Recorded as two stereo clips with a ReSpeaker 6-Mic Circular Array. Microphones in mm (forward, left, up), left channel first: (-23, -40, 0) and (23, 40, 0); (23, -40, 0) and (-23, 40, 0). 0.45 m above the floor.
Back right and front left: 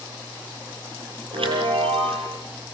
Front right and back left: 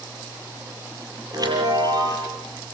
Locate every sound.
1.3 s a chime: 75° left, 8.5 m